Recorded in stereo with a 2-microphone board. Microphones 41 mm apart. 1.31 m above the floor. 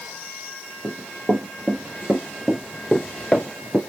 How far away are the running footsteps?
About 1.9 m.